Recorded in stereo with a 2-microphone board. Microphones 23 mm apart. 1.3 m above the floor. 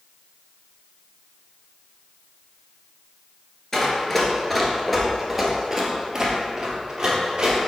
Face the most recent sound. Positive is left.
turn(degrees=-30)  # may be behind; listen again after turning